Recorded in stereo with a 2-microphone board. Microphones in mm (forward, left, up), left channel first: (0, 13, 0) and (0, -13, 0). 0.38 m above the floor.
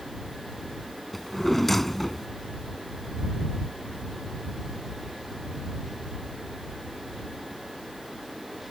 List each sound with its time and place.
1.1 s a drawer: 10° left (ahead or behind)